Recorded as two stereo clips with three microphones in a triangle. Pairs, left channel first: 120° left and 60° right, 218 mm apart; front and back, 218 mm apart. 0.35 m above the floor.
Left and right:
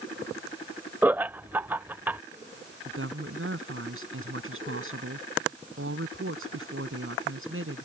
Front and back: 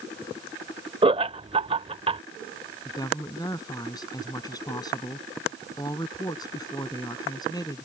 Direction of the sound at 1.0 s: 135° right.